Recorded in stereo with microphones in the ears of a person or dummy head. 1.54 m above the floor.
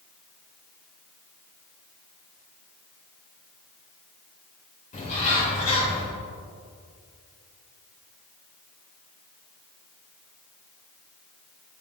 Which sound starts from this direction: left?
A bird, at 4.9 s.